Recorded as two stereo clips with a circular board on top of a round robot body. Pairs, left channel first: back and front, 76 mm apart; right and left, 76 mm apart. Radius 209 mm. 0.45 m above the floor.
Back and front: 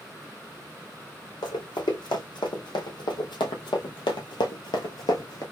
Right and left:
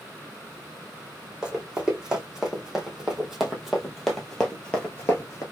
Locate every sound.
1.4 s running footsteps: 170° left, 2.5 m; by 5.4 s 140° right, 0.6 m